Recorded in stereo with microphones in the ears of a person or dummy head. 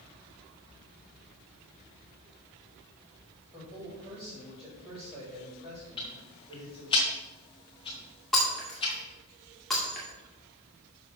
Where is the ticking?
25° left (ahead or behind), 1.5 m.